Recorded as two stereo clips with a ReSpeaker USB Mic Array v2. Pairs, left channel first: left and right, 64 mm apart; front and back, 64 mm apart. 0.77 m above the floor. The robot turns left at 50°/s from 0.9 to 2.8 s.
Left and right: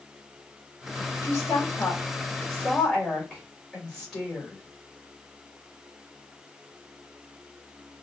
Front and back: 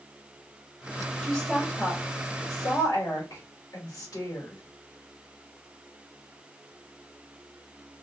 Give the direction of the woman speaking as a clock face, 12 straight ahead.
9 o'clock.